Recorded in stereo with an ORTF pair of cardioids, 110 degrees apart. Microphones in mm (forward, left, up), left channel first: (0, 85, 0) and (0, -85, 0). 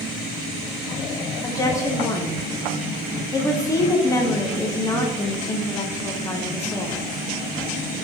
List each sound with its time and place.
1.4 s a woman speaking: 20° left, 0.9 m